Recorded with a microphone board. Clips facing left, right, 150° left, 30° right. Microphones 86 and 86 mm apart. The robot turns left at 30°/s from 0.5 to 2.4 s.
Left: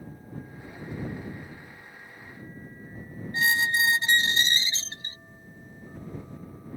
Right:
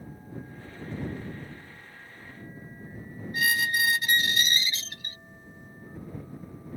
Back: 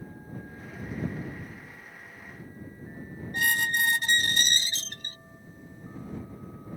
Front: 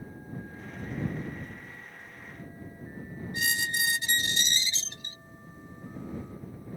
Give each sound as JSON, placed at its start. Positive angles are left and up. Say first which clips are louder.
{"t": 3.3, "sound": "a squeak", "louder": "left 2 dB, back 5 dB", "azimuth_deg": 145}